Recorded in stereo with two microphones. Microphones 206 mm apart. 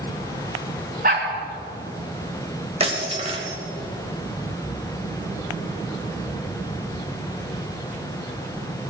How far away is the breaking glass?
About 2.5 m.